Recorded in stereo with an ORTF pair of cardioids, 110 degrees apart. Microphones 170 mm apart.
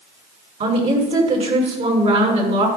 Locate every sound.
0.6 s a woman speaking: 40° right, 6.5 m